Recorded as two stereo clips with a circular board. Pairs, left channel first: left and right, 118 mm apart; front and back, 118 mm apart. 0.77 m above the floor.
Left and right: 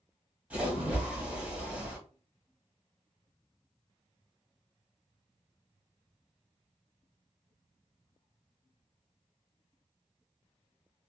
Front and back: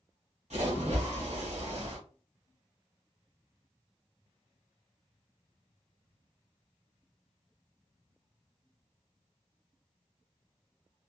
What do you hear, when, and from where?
0.5 s a splash: 170° right, 1.4 m